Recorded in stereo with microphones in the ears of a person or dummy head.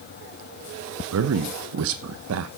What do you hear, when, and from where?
1.1 s a man speaking: 75° right (ahead or behind), 0.7 m